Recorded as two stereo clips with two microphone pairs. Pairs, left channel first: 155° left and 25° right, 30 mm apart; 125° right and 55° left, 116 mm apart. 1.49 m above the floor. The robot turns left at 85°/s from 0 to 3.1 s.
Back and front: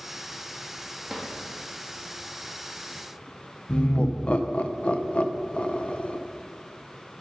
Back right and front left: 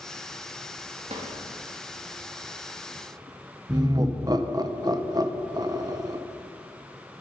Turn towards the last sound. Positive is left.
turn(degrees=105)